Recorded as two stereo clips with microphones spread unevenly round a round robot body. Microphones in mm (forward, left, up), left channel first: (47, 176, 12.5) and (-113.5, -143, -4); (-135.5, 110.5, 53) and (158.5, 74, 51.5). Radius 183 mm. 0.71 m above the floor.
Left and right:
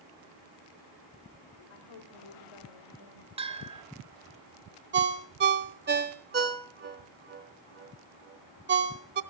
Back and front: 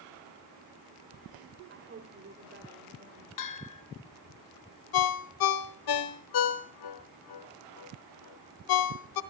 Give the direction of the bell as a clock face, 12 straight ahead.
6 o'clock.